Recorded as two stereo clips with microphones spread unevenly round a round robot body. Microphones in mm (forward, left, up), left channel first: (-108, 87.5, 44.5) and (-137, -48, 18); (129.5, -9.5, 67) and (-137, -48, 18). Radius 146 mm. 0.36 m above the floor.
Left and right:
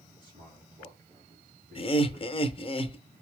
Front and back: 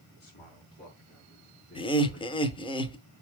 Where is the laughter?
80° left, 0.9 m.